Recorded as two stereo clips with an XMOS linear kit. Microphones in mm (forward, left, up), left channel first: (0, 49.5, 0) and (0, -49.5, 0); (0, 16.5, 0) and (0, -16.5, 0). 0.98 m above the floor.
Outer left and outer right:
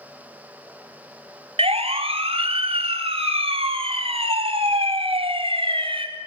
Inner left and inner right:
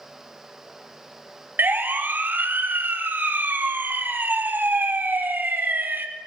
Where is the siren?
75° right (ahead or behind), 4.5 m; by 6.1 s 60° right (ahead or behind), 4.5 m.